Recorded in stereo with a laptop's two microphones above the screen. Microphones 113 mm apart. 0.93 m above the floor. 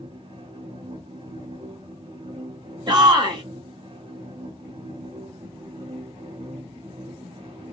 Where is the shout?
40° right (ahead or behind), 1.3 m.